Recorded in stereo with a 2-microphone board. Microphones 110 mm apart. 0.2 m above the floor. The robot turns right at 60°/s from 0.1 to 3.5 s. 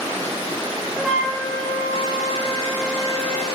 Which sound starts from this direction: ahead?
A flute, at 0.9 s.